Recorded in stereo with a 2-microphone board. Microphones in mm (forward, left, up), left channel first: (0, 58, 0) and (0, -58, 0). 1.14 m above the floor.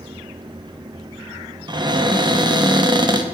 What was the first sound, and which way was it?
A cupboard door, 40° right (ahead or behind).